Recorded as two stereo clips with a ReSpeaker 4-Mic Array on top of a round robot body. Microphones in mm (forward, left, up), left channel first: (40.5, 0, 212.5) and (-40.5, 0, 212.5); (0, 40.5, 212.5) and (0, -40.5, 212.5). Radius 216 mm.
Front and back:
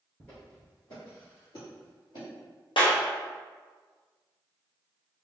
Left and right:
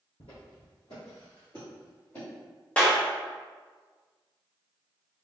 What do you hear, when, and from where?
0.2 s footsteps: 85° left, 1.3 m; by 2.3 s 20° left, 2 m
2.8 s a clap: 15° left, 0.8 m